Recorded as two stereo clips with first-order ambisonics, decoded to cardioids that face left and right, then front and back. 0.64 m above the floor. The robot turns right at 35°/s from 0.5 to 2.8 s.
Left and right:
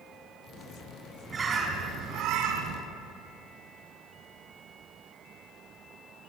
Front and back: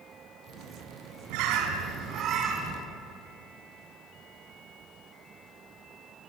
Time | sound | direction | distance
1.3 | a bird | 165° right | 4 m